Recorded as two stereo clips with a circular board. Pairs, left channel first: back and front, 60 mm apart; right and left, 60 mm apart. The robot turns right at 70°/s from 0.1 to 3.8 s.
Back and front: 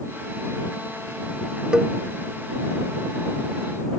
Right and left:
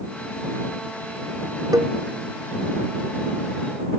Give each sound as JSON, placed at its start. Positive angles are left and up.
{"t": 1.7, "sound": "a cowbell", "azimuth_deg": 75}